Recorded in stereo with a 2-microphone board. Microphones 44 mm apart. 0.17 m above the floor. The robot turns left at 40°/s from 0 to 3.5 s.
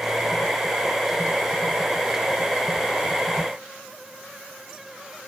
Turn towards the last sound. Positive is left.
No sound to turn to.